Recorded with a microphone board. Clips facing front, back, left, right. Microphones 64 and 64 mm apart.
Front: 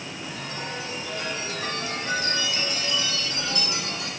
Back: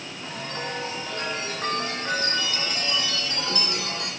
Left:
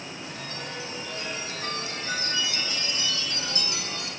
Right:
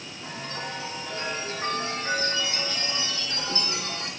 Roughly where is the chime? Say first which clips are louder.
Back 3 dB, right 5 dB; behind right.